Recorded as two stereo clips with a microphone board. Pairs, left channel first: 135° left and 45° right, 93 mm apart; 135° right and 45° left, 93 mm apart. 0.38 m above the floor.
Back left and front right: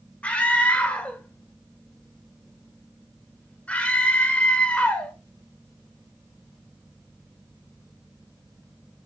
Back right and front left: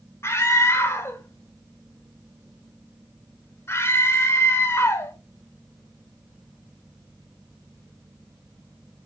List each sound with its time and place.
0.2 s a scream: 160° right, 0.9 m